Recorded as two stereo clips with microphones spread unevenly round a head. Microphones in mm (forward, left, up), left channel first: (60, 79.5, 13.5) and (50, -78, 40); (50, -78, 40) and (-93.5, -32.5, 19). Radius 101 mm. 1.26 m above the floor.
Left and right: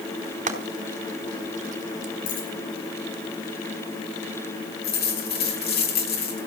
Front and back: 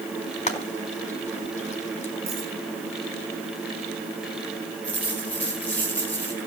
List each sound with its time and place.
0.5 s frying: 60° right, 4.5 m
2.3 s a dropped coin: 100° left, 6.5 m
4.8 s a dropped coin: 65° left, 5 m